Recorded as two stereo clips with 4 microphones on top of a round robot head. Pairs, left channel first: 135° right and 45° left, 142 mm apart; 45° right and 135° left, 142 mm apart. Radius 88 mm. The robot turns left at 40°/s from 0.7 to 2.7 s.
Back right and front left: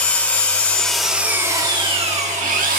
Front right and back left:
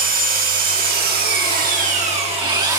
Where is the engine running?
145° left, 2.5 m; by 2.8 s 65° left, 2.5 m.